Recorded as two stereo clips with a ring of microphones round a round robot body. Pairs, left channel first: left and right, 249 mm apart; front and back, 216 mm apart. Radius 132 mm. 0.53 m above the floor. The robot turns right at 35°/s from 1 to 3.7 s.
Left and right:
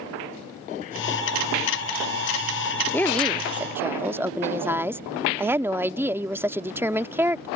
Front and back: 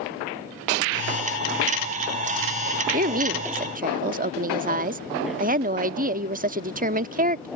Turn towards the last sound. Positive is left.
turn(degrees=-165)